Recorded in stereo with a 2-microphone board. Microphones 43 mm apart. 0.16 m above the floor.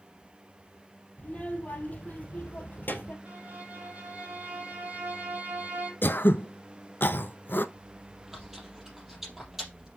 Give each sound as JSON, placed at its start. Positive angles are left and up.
{"t": 1.2, "sound": "a child speaking", "side_deg": 30, "distance_m": 3.5}
{"t": 3.2, "sound": "a violin", "side_deg": -40, "distance_m": 3.5}
{"t": 6.0, "sound": "throat clearing", "side_deg": 55, "distance_m": 0.6}
{"t": 7.8, "sound": "chewing", "side_deg": -5, "distance_m": 3.5}